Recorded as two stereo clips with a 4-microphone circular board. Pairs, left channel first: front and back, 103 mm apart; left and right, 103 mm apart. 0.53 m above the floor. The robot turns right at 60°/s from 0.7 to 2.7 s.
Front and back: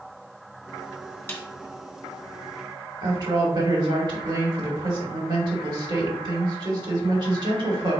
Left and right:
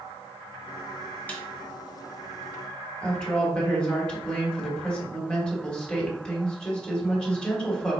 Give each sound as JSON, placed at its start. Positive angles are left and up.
{"t": 1.3, "sound": "a snare drum", "azimuth_deg": 40, "distance_m": 1.0}
{"t": 3.0, "sound": "a woman speaking", "azimuth_deg": 170, "distance_m": 1.3}